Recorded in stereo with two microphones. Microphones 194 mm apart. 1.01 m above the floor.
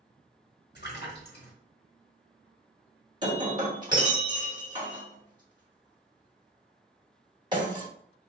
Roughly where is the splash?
Left.